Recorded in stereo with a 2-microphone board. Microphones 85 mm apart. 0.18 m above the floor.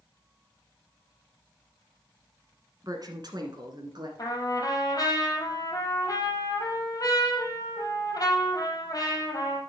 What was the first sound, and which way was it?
A woman speaking, 50° right (ahead or behind).